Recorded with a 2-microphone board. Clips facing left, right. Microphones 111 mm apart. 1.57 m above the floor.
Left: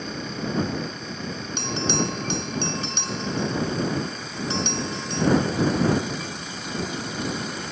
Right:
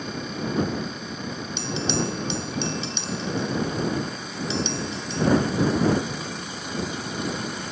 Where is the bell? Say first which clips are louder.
Left 1 dB; 55° left (ahead or behind).